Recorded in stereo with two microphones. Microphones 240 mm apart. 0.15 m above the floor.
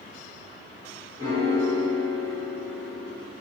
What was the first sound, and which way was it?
A piano, 15° left (ahead or behind).